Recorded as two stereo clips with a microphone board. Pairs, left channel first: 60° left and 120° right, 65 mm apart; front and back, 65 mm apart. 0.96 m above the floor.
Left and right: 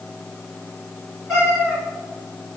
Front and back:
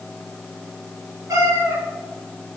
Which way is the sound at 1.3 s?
160° left.